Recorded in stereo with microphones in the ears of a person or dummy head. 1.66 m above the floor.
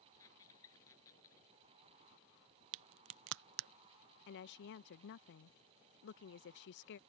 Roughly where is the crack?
Right.